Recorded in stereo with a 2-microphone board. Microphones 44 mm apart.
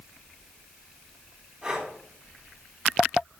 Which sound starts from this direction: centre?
Breathing, at 1.6 s.